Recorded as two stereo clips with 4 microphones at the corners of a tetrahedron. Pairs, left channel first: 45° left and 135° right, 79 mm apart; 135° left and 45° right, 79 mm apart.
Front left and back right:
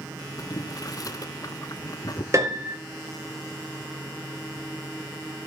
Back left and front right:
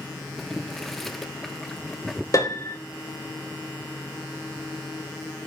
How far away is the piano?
About 2.5 m.